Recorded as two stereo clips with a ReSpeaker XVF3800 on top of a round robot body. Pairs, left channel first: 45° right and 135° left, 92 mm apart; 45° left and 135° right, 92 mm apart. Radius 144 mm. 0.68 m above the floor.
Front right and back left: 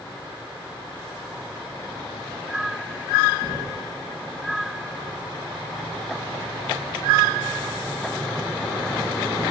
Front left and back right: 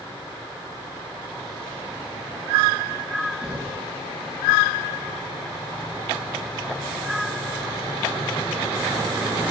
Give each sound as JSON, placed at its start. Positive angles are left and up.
{"t": 3.4, "sound": "knocking", "azimuth_deg": -70, "distance_m": 6.0}